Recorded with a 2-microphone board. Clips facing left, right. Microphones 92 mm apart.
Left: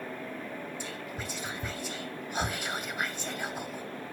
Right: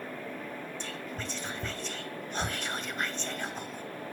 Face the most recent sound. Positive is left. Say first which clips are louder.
# even
turn(degrees=10)  # may be behind; listen again after turning